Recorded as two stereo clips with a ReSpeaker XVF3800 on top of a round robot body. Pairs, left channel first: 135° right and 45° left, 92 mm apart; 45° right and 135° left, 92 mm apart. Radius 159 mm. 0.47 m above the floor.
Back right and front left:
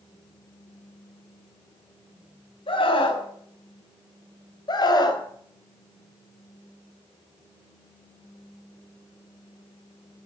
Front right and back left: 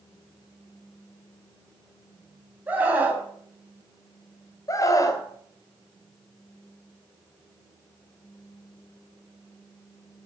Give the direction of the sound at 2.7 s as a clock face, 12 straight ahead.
5 o'clock.